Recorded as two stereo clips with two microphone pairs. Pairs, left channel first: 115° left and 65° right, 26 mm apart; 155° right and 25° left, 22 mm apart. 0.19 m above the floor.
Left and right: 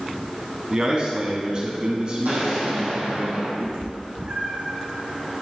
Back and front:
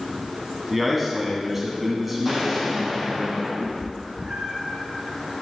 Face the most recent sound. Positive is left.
turn(degrees=-35)